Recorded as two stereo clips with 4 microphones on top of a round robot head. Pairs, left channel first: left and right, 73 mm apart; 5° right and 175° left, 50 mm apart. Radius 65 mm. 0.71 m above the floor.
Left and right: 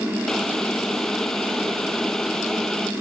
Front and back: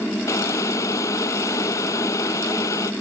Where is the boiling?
5° left.